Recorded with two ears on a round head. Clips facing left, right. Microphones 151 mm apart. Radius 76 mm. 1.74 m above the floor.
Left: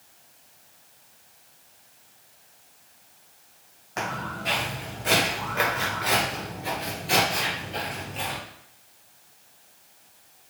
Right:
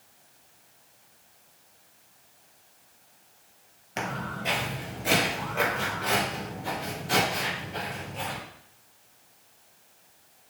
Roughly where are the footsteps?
Right.